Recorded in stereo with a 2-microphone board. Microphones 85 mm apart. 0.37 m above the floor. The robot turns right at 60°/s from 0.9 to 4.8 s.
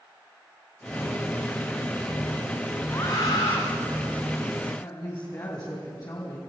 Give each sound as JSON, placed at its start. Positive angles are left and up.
{"t": 2.9, "sound": "a scream", "azimuth_deg": 35, "distance_m": 3.5}
{"t": 4.8, "sound": "a woman speaking", "side_deg": 50, "distance_m": 3.5}